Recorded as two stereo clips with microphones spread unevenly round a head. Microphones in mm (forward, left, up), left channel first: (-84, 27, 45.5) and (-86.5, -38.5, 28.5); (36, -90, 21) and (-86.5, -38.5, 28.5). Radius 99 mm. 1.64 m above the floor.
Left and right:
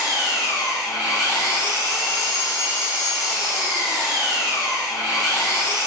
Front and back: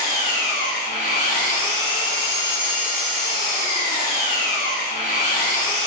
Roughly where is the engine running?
Ahead left.